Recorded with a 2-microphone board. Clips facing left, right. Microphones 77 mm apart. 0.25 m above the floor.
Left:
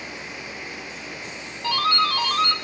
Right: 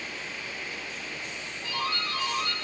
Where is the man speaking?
No man speaking in this recording.